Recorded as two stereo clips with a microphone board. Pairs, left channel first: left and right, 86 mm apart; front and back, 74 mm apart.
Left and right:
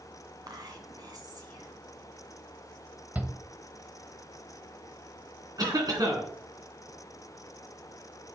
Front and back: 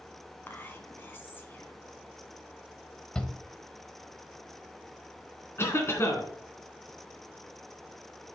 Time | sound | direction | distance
0.5 | whispering | 60° right | 1.9 m
3.1 | a shout | 60° right | 0.9 m
5.6 | a cough | 50° right | 3 m